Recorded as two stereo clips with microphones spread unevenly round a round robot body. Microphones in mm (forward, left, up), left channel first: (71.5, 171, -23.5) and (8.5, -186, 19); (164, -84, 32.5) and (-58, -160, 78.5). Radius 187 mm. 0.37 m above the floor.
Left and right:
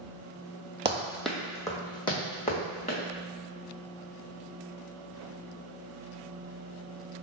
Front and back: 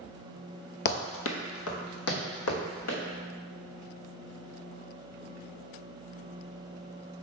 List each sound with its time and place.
0.8 s running footsteps: 30° right, 0.6 m; by 3.0 s 5° left, 2 m